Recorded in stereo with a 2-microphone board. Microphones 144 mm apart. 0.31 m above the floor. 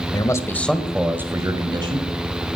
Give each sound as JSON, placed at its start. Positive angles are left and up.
{"t": 0.1, "sound": "a man speaking", "side_deg": 30, "distance_m": 1.3}